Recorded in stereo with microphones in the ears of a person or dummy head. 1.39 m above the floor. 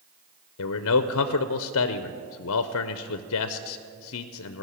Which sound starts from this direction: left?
A man speaking, at 0.6 s.